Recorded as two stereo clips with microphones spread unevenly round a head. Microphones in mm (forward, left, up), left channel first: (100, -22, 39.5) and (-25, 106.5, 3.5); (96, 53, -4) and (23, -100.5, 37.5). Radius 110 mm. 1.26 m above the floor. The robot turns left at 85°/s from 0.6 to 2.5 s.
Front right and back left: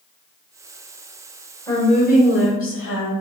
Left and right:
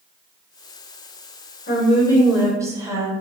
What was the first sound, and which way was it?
A woman speaking, 30° left.